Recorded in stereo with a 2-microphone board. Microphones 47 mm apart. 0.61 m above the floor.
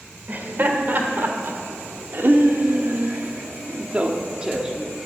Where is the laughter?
40° right (ahead or behind), 2 m; by 5.1 s 10° right (ahead or behind), 1.3 m.